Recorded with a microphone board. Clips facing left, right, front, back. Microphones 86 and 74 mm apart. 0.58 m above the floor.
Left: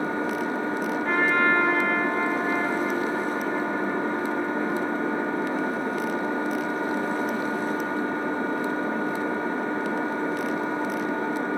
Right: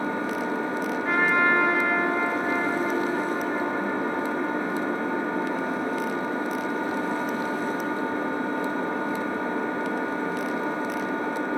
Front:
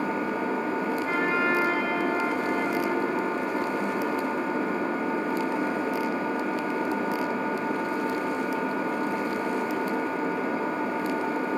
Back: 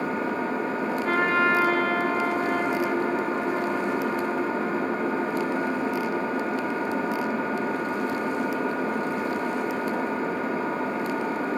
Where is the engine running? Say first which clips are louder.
Left 1 dB, back 1 dB; 140° left, 3.5 m.